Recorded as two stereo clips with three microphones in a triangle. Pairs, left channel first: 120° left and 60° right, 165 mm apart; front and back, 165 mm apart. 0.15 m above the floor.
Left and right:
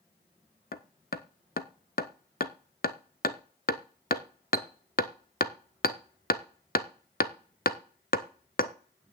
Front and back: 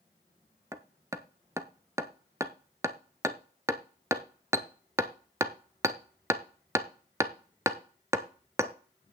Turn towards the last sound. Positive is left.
turn(degrees=110)